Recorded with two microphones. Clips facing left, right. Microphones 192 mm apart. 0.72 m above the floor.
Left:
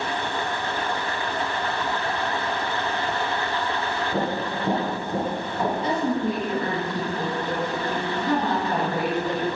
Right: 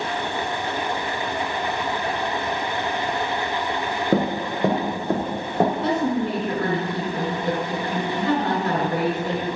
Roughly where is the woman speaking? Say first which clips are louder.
Right 2 dB; right.